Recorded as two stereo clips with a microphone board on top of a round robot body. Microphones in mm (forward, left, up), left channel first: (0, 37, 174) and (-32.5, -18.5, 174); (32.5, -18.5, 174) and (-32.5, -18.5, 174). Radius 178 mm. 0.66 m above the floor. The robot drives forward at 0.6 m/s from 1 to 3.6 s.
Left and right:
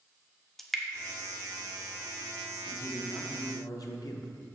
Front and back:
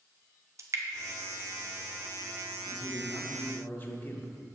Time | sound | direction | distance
0.6 | dripping | 145° left | 0.7 m
2.6 | a man speaking | 35° left | 1.2 m